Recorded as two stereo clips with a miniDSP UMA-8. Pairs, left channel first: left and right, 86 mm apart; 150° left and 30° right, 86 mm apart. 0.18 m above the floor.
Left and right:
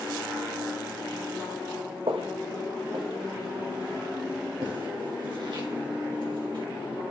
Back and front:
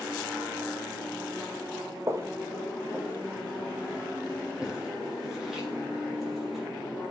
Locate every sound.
2.1 s footsteps: 85° right, 1.2 m; by 6.7 s 120° right, 4 m